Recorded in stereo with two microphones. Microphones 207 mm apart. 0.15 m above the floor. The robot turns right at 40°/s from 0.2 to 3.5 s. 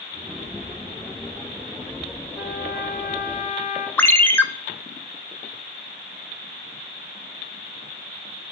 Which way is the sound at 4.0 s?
10° left (ahead or behind).